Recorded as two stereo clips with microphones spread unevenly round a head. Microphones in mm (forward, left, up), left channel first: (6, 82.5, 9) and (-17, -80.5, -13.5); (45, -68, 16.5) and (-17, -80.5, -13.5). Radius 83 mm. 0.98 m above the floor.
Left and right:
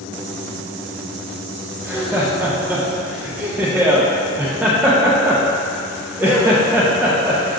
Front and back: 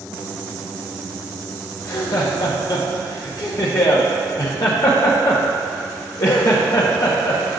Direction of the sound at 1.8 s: 20° right.